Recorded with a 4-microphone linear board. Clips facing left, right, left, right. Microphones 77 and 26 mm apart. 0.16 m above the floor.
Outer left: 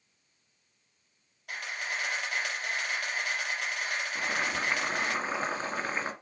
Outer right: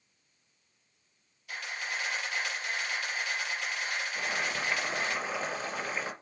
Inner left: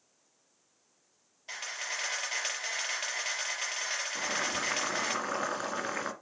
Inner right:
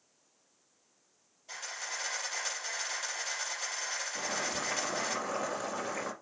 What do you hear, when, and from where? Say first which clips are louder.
1.5 s a camera shutter: outer left 1 dB, inner left 3 dB; 60° left (ahead or behind), 4.5 m
4.2 s boiling: outer left 3 dB, inner left 2 dB; 40° left (ahead or behind), 2 m